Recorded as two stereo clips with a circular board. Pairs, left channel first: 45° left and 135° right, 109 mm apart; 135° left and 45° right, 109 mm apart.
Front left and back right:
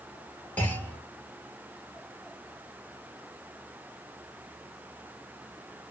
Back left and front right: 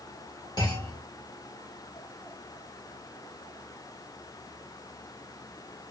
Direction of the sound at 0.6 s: 110° left.